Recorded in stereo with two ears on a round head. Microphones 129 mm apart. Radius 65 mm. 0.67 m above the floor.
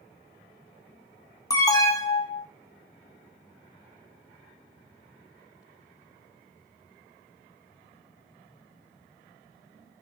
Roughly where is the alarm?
Left.